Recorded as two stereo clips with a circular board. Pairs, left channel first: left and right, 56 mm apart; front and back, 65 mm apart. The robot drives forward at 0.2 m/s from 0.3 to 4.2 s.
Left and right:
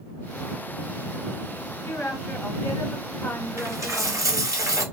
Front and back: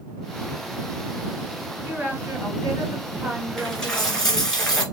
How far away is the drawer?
No drawer in this recording.